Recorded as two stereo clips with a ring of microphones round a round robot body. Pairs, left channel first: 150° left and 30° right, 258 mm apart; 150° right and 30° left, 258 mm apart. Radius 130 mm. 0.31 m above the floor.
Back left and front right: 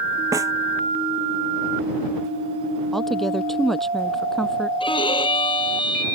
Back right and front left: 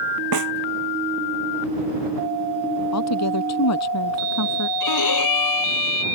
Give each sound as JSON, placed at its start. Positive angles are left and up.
{"t": 0.3, "sound": "a snare drum", "azimuth_deg": 50}
{"t": 2.9, "sound": "a woman speaking", "azimuth_deg": -120}
{"t": 4.8, "sound": "a violin", "azimuth_deg": -140}